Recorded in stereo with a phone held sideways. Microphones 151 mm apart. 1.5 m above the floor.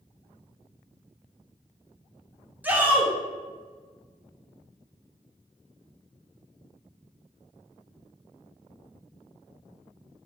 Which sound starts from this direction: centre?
A shout, at 2.6 s.